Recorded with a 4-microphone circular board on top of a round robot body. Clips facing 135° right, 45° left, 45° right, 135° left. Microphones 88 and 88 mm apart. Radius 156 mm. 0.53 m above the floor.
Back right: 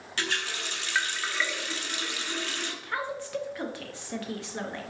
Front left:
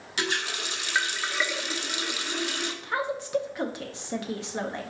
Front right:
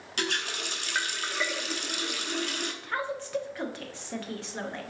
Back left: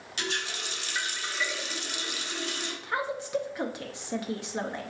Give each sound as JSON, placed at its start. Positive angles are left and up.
{"t": 0.2, "sound": "a running tap", "azimuth_deg": -25, "distance_m": 0.9}
{"t": 2.8, "sound": "a woman speaking", "azimuth_deg": 85, "distance_m": 0.7}